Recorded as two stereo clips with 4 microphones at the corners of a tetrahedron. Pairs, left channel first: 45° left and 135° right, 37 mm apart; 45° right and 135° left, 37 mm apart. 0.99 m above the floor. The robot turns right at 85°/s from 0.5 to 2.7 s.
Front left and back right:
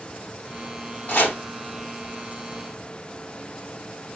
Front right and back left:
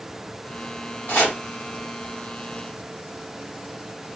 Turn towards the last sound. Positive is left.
turn(degrees=125)